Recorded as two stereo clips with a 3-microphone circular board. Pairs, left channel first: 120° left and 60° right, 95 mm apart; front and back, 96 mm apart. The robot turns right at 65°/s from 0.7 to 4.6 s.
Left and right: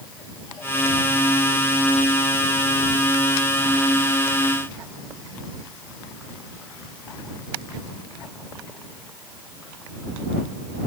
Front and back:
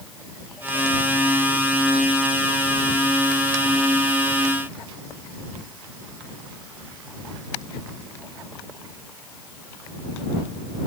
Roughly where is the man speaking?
I don't hear a man speaking.